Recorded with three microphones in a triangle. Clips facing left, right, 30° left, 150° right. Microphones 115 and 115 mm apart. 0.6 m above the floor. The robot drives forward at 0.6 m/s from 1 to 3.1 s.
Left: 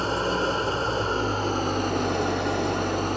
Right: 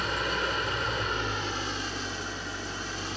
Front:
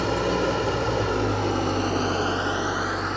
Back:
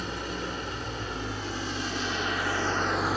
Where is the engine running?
35° left, 1.1 m; by 3.2 s 125° left, 0.8 m.